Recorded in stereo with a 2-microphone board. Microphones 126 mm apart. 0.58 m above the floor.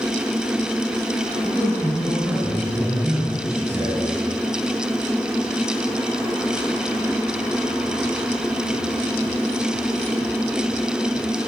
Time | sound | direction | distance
1.4 | a man speaking | 10° right (ahead or behind) | 8.5 m